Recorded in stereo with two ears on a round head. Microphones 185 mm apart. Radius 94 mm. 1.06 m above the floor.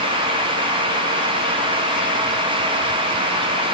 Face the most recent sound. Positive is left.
No sound to turn to.